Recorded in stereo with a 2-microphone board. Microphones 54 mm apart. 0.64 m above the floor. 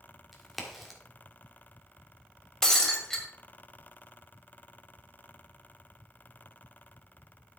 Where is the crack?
Centre (ahead or behind), 1.7 m.